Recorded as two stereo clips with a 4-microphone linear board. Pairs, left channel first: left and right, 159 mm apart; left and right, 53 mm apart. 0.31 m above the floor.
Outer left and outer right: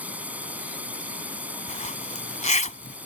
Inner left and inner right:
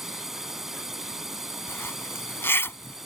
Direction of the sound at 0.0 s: 10° right (ahead or behind).